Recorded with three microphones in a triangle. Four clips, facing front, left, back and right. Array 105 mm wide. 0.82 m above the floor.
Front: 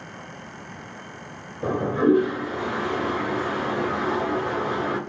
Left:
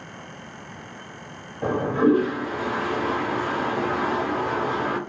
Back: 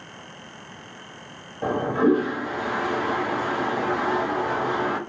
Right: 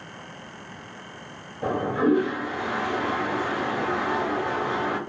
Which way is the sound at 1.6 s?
160° left.